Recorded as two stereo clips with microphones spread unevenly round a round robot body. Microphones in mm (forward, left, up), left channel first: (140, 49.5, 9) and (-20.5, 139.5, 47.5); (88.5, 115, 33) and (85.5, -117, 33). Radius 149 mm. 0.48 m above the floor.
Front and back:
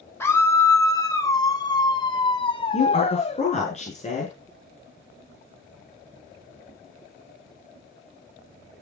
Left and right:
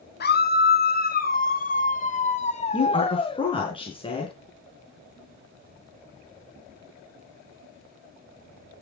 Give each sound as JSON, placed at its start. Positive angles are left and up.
{"t": 0.2, "sound": "a scream", "azimuth_deg": 45, "distance_m": 3.5}
{"t": 2.7, "sound": "a woman speaking", "azimuth_deg": 20, "distance_m": 6.5}